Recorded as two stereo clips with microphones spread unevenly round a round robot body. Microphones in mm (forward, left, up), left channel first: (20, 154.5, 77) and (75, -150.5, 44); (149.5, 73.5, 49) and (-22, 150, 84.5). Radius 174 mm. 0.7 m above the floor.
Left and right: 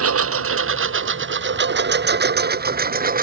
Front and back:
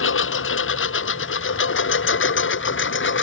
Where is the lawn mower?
35° right; by 3.2 s 15° right.